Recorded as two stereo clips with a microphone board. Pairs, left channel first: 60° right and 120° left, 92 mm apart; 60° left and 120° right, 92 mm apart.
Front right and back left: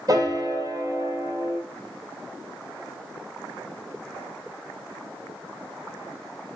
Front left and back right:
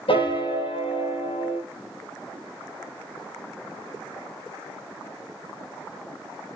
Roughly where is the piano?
Left.